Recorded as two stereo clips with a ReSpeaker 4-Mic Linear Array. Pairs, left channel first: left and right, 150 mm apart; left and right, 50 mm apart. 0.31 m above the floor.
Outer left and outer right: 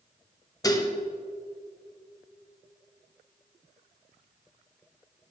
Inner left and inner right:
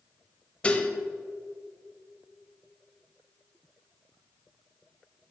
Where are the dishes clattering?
25° left (ahead or behind), 0.7 m.